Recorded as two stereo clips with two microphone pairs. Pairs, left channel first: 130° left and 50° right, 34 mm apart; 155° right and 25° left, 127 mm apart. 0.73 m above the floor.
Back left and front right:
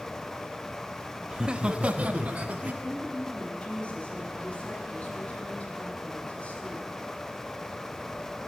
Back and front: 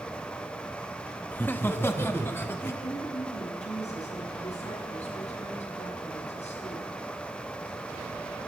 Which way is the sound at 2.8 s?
Straight behind.